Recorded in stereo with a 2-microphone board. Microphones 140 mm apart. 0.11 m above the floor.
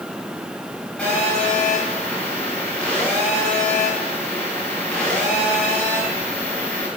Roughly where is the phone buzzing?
Centre.